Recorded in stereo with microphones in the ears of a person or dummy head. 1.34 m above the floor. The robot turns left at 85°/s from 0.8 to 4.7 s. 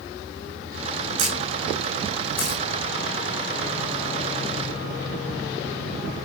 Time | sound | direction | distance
1.2 | a camera shutter | 50° right (ahead or behind) | 7 m